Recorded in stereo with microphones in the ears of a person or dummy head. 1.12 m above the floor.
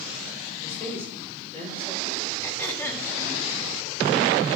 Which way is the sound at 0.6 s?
20° left (ahead or behind).